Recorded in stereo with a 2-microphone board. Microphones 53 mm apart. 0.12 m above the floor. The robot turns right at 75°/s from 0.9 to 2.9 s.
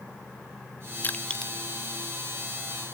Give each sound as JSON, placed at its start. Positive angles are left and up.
{"t": 1.0, "sound": "crushing", "side_deg": 40}